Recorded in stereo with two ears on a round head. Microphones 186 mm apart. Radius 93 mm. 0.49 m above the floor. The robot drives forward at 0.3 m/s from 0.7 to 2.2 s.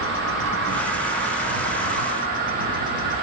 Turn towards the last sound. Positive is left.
turn(degrees=-45)  # may be behind; listen again after turning